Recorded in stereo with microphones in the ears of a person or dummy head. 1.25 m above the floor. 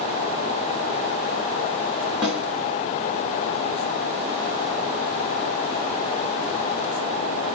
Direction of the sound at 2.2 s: 5° right (ahead or behind).